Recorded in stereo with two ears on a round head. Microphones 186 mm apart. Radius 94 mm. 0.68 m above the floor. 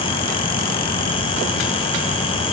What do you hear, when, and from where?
Only background noise.